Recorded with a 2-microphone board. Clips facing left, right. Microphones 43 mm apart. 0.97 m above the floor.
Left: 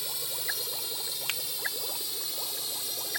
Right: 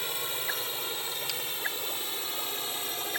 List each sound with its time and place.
0.0 s a drone: 40° right (ahead or behind)
1.3 s a finger snap: 40° left (ahead or behind)